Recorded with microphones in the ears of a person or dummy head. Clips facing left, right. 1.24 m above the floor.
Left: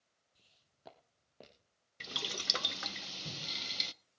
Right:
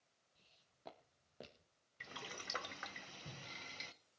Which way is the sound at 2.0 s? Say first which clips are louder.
Left 7 dB; 50° left (ahead or behind).